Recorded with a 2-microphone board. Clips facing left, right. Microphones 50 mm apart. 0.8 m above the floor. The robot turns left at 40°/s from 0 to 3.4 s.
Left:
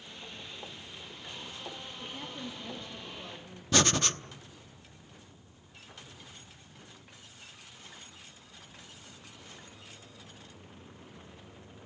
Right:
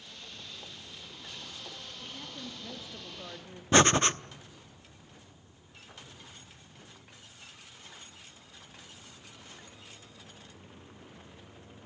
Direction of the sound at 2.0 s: 25° left.